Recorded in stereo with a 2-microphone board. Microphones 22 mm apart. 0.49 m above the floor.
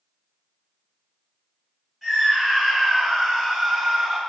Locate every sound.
2.0 s a scream: 5° right (ahead or behind), 1.2 m; by 4.2 s 10° right (ahead or behind), 0.9 m